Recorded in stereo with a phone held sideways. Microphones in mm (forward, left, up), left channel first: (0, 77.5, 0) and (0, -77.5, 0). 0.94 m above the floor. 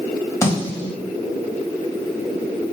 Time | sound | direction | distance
0.4 | a snare drum | 20° left (ahead or behind) | 1.3 m